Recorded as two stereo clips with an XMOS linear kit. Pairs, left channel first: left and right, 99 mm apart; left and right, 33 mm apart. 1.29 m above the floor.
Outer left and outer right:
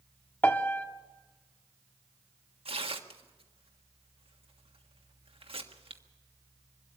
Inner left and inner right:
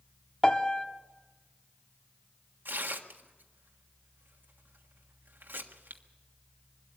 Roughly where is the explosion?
No explosion in this recording.